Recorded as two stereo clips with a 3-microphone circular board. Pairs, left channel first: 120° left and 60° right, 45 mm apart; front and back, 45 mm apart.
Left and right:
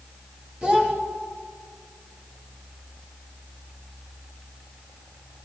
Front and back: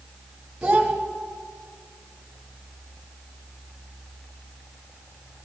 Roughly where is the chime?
I don't hear a chime.